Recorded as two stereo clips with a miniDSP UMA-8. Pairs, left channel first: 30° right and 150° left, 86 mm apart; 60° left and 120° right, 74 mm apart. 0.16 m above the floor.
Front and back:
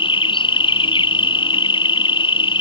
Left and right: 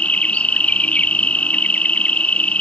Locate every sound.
0.0 s an insect: 10° right